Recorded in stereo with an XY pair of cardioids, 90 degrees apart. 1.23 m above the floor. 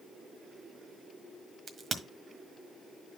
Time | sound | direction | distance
1.7 | a crack | 50° right | 1.6 m